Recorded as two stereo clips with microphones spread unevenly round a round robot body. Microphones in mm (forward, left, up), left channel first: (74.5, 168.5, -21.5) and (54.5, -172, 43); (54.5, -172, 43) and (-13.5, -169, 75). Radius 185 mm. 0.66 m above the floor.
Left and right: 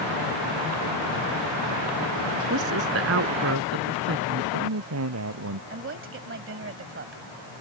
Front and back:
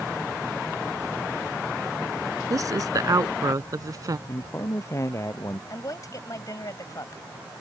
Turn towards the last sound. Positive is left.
turn(degrees=-35)